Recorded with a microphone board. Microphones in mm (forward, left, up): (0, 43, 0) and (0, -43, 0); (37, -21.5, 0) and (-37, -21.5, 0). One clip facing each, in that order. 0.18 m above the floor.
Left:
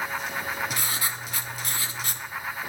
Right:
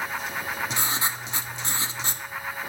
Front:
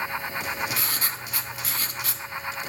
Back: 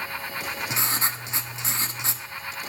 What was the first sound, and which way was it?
Writing, 140° right.